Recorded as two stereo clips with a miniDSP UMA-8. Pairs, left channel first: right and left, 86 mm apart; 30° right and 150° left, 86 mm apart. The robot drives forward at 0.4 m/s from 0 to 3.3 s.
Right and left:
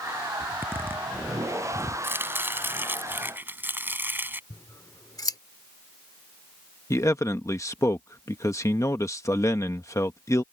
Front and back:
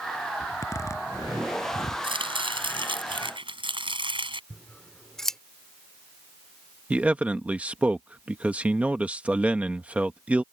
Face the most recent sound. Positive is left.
turn(degrees=-140)